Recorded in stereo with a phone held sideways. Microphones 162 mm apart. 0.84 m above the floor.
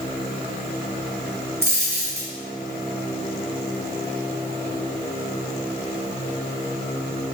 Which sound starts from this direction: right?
A dropped coin, at 1.6 s.